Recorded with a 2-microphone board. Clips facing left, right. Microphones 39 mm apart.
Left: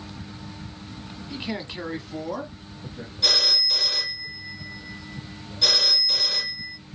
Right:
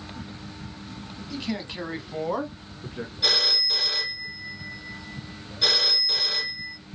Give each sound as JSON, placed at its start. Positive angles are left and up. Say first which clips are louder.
{"t": 1.3, "sound": "a man speaking", "louder": "even", "side_deg": 20, "distance_m": 1.1}
{"t": 3.2, "sound": "a phone ringing", "louder": "left 1 dB", "side_deg": -10, "distance_m": 1.9}